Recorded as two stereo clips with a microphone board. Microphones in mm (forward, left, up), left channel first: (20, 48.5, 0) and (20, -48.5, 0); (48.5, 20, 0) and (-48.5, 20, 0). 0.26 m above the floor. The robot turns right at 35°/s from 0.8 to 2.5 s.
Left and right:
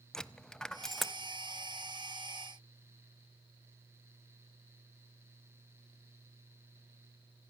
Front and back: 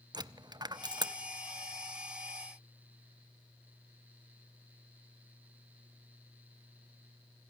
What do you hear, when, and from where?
0.1 s a dropped coin: 170° left, 0.7 m; by 1.1 s straight behind, 0.7 m